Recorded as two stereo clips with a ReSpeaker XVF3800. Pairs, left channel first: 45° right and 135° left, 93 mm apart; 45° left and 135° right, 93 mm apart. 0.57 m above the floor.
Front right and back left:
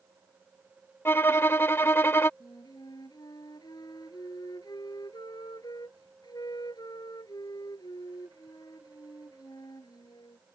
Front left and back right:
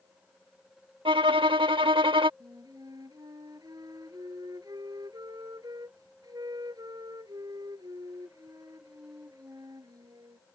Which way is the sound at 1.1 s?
110° right.